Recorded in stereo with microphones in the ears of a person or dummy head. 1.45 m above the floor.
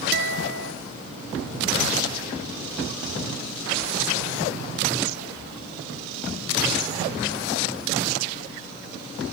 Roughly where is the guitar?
Right.